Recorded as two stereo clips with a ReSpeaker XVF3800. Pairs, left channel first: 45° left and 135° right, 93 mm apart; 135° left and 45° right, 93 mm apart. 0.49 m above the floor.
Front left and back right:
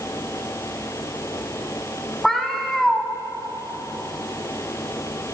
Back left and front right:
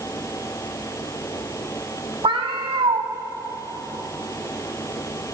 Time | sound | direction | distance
2.2 | a cat meowing | 40° right | 1.2 m